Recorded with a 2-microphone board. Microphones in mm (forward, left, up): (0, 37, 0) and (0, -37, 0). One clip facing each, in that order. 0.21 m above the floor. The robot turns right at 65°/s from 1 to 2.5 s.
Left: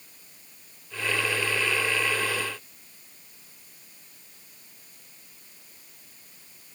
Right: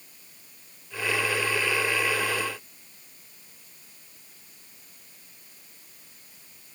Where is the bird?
No bird in this recording.